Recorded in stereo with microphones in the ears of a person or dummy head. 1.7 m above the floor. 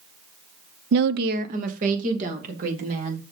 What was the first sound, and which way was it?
A woman speaking, 65° right (ahead or behind).